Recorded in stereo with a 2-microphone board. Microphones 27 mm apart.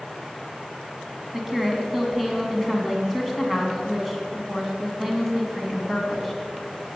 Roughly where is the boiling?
No boiling in this recording.